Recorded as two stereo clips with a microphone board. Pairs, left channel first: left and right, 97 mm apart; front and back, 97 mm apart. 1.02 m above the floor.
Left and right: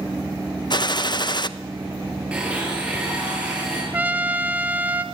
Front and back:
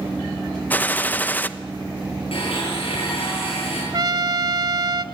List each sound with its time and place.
0.7 s a gunshot: 65° left, 0.8 m
2.3 s a blender: 10° right, 8 m
3.9 s a trumpet: 160° right, 1.0 m